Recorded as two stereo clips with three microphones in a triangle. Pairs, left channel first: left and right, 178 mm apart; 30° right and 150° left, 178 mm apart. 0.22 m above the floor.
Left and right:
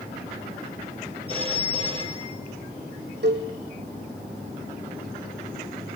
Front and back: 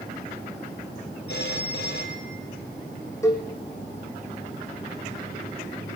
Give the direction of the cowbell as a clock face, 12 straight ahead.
4 o'clock.